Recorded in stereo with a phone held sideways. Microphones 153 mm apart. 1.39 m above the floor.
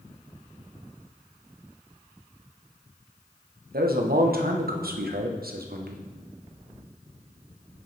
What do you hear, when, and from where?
3.7 s a man speaking: 85° right, 0.9 m